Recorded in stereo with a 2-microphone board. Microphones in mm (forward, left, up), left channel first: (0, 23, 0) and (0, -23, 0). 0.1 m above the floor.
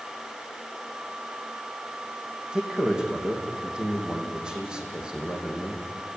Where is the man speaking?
15° right (ahead or behind), 5.5 m.